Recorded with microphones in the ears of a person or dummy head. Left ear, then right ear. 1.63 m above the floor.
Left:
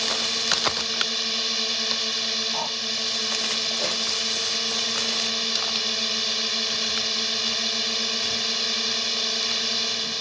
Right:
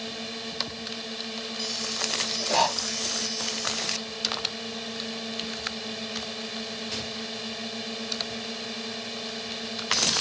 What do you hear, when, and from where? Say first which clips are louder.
0.0 s a drone: left 11 dB; 45° left (ahead or behind)
2.5 s breathing: right 4 dB; 55° right (ahead or behind)